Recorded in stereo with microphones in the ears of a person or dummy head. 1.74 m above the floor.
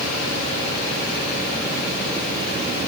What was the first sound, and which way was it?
Only background noise.